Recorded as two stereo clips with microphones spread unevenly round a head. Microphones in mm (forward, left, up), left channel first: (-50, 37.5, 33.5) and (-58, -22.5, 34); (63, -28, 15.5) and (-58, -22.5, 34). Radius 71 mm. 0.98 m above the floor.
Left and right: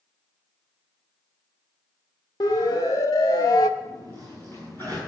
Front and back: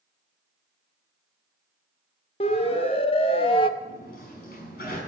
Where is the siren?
45° left, 2.5 m; by 3.7 s 50° left, 0.6 m.